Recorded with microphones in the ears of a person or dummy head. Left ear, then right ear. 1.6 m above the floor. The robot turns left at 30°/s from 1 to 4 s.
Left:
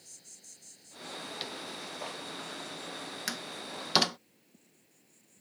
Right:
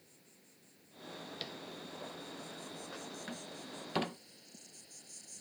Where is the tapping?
15° left (ahead or behind); by 1.6 s 10° left (ahead or behind).